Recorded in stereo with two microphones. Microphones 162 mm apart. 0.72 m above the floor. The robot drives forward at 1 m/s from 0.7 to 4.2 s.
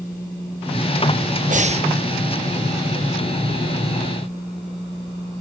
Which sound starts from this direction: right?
Breathing, at 1.5 s.